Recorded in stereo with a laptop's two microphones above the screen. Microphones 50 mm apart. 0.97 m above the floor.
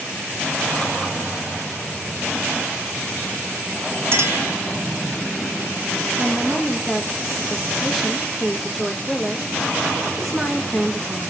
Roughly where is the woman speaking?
Centre.